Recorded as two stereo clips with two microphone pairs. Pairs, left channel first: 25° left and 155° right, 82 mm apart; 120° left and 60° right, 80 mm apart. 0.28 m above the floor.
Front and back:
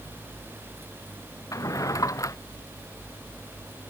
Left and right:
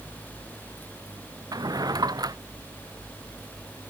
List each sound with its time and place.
1.5 s a drawer: 25° right